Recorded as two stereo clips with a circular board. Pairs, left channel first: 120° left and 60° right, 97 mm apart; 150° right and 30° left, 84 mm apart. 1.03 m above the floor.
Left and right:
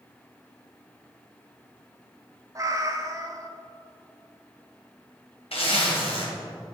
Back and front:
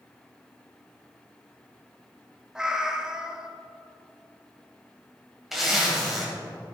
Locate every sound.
2.5 s a cat meowing: 50° right, 0.8 m
5.5 s a zipper: 115° left, 3 m